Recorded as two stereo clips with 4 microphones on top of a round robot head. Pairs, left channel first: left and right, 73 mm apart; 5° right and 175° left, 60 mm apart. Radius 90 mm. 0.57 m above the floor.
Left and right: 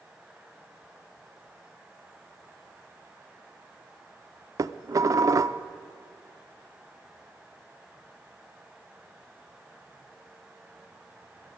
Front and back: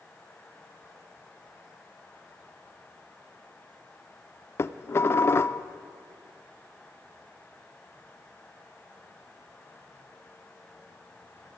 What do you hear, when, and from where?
4.6 s dishes clattering: 50° right, 0.6 m